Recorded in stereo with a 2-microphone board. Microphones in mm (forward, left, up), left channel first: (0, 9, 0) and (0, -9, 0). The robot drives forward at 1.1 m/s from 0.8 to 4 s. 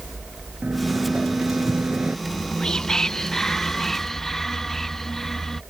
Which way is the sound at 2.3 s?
45° left (ahead or behind).